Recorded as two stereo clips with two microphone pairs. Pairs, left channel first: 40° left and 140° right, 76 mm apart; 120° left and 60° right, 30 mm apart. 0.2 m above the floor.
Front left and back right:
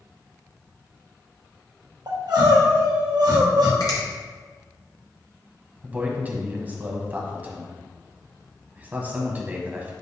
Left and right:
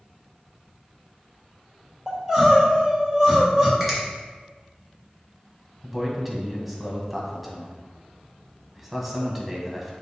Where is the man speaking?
140° right, 1.3 m.